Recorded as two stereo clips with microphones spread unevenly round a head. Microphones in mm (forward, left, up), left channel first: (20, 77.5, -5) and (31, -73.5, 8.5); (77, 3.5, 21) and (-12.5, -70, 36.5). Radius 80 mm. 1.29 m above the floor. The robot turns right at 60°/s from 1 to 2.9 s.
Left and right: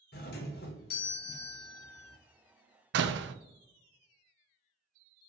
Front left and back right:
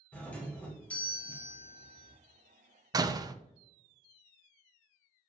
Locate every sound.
0.1 s a doorbell: 115° left, 1.1 m; by 2.2 s 175° right, 1.1 m
2.9 s a door slam: 80° right, 0.6 m